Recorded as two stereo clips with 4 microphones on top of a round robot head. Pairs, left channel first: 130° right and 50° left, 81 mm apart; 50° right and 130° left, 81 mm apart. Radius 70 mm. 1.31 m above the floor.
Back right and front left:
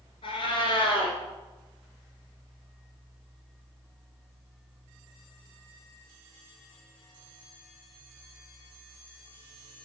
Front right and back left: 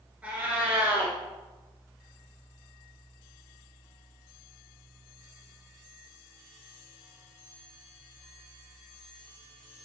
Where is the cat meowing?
155° right, 1.9 m.